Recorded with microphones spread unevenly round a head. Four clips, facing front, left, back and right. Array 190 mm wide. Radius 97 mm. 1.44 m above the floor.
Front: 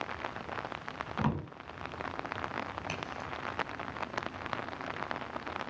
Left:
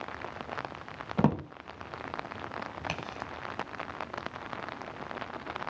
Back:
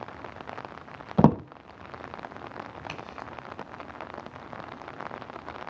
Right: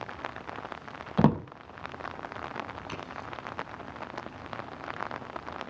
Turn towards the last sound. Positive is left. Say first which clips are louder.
# left 2 dB, even
turn(degrees=80)